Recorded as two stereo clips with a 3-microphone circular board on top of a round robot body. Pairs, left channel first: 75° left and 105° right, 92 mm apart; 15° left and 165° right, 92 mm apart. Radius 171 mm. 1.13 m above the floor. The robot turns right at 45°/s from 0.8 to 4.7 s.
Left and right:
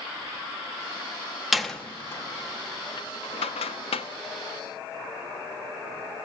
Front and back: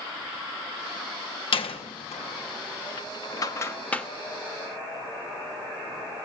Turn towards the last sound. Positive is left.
turn(degrees=125)